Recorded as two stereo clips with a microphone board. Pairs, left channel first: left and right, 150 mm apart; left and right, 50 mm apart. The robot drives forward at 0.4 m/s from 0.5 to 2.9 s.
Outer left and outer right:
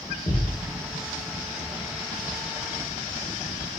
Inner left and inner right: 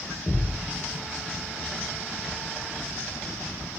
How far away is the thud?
About 0.9 m.